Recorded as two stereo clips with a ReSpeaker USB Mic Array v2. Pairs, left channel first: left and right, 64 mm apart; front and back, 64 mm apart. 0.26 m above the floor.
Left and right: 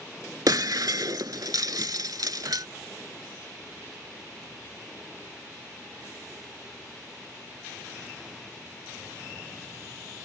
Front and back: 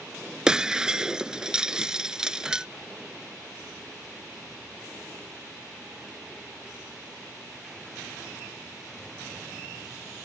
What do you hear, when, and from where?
0.5 s breaking glass: 100° right